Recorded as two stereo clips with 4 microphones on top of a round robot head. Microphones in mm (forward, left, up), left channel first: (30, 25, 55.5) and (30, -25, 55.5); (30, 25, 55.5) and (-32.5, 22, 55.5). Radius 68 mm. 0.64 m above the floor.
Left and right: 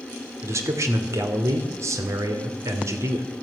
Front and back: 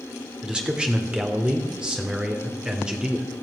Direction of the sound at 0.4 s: 105° right.